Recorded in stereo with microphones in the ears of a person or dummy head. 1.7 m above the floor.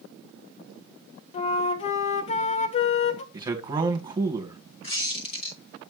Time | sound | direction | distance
1.3 | a flute | 40° left (ahead or behind) | 0.7 m
3.3 | a man speaking | 25° right (ahead or behind) | 1.5 m
4.8 | a squeak | 35° left (ahead or behind) | 1.9 m